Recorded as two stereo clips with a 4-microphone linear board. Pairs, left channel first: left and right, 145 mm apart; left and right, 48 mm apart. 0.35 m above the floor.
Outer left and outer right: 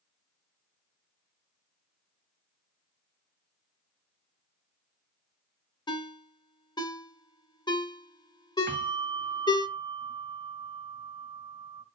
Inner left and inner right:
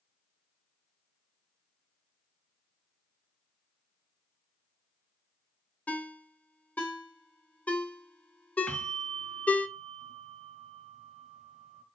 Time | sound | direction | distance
5.9 | a ringtone | 30° left (ahead or behind) | 0.7 m
8.7 | a bell | 20° left (ahead or behind) | 1.6 m